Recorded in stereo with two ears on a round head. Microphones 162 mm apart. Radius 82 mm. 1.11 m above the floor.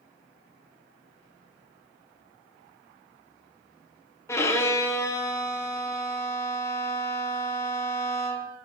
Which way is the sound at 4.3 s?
15° left (ahead or behind).